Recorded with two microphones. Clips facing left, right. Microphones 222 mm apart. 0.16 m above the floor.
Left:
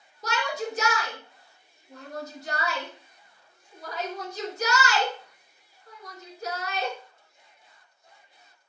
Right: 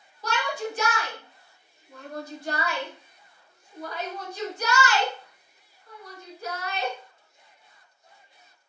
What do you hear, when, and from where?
0.2 s a shout: 40° left (ahead or behind), 1.4 m